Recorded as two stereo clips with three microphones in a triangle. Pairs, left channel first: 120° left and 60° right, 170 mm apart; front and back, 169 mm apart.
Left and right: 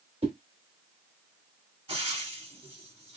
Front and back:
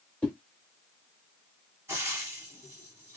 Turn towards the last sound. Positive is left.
turn(degrees=-110)